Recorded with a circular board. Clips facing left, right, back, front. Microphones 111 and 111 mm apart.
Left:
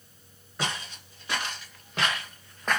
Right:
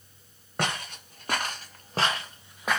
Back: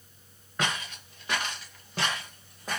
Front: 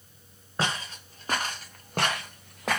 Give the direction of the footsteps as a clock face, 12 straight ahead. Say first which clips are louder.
Right 3 dB, front 1 dB; 2 o'clock.